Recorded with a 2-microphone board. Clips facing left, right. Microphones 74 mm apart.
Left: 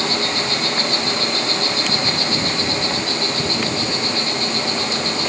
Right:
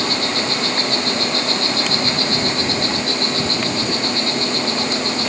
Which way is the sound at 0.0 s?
45° right (ahead or behind).